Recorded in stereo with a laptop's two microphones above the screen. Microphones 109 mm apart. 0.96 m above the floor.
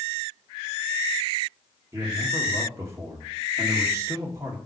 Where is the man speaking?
25° right (ahead or behind), 1.8 m.